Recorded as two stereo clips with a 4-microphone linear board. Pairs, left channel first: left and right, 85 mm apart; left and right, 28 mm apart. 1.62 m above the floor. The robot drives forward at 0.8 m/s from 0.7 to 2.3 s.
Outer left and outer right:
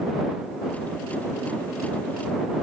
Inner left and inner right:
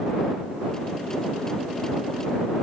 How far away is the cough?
No cough in this recording.